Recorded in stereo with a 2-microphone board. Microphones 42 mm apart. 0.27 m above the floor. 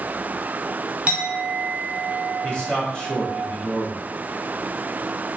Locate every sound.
1.1 s a clink: 25° right (ahead or behind), 1.1 m
2.4 s a man speaking: 20° left (ahead or behind), 0.9 m